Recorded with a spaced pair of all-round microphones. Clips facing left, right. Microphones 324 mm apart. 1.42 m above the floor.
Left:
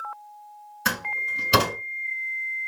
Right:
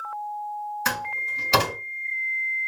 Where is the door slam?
20° left (ahead or behind), 3.5 m.